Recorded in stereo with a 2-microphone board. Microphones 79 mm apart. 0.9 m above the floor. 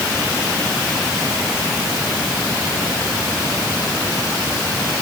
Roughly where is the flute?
I don't hear a flute.